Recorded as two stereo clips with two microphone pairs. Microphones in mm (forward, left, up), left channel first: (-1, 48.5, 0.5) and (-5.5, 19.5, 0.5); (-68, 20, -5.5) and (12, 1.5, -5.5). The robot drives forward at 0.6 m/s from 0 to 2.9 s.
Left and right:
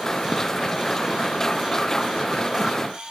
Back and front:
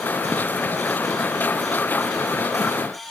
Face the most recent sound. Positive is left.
No sound to turn to.